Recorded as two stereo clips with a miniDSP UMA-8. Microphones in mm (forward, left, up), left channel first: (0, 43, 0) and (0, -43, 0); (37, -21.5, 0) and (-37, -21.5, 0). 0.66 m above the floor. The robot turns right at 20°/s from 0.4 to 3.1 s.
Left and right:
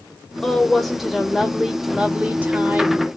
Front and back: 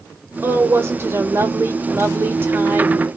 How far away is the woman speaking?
About 1.1 m.